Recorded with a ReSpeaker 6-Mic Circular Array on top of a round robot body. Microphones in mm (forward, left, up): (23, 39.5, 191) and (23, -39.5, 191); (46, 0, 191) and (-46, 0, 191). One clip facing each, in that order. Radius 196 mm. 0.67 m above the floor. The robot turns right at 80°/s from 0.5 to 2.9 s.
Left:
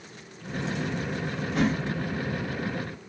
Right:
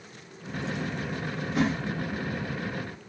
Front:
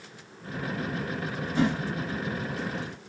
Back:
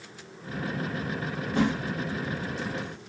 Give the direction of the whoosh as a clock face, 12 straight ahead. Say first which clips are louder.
Left 1 dB, even; 6 o'clock.